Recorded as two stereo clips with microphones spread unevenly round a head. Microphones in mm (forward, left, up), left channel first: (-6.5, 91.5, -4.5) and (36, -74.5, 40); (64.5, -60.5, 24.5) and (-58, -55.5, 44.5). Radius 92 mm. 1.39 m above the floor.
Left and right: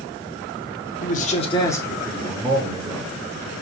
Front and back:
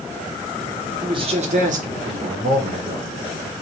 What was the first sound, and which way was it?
A man speaking, 115° left.